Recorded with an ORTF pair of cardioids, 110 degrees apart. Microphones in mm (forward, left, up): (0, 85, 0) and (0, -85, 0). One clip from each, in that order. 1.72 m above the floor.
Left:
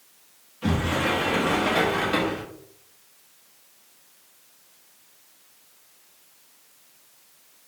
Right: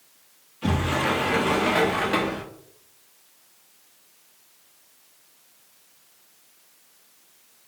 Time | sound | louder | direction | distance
0.6 | a sliding door | right 1 dB | 10° right | 0.7 m